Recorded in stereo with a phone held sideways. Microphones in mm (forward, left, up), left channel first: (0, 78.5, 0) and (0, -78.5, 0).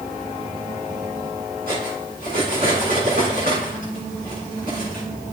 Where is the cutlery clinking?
75° right (ahead or behind), 7.5 m.